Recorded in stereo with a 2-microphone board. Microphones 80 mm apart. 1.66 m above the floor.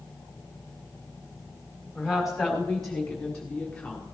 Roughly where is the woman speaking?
Centre.